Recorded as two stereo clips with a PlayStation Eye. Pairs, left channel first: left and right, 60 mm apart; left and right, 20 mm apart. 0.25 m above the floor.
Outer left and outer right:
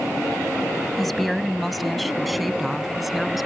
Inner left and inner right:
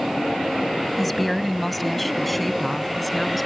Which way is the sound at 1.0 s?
Centre (ahead or behind).